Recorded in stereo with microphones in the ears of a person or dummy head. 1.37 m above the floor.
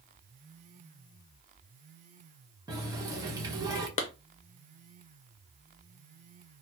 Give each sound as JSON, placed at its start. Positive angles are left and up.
{"t": 2.7, "sound": "a running tap", "side_deg": -20, "distance_m": 0.9}
{"t": 4.0, "sound": "a clap", "side_deg": 35, "distance_m": 0.5}